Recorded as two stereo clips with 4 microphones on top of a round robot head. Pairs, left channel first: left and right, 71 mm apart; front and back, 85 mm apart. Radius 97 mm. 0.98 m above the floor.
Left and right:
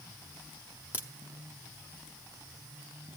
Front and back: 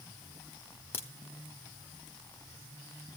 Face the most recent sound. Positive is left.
turn(degrees=50)